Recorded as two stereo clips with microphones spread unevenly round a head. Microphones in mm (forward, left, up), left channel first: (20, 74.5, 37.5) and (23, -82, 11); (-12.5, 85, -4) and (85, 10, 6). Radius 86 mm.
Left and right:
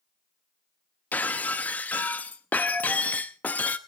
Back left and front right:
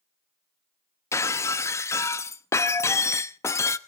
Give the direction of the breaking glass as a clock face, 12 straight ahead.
8 o'clock.